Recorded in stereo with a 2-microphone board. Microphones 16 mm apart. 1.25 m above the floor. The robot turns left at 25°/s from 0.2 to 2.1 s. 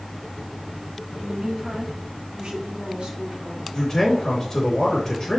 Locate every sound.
1.2 s a woman speaking: 65° right (ahead or behind), 2 m; by 3.6 s 85° right, 2 m
3.7 s a man speaking: 40° left (ahead or behind), 3.5 m